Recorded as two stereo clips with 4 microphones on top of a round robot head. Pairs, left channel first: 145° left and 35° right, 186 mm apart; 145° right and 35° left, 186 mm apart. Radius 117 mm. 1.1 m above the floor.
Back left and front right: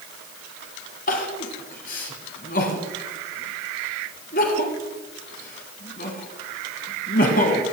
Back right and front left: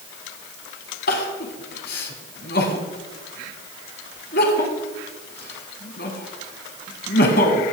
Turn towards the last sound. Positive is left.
turn(degrees=-175)